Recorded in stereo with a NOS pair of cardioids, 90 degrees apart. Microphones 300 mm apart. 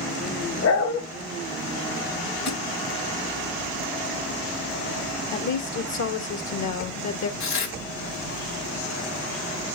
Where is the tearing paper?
70° left, 3 m.